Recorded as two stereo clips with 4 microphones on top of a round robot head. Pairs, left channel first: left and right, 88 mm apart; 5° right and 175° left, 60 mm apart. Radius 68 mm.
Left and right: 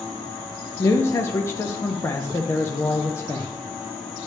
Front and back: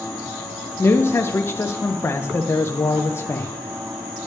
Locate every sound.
0.8 s a man speaking: 30° left, 0.5 m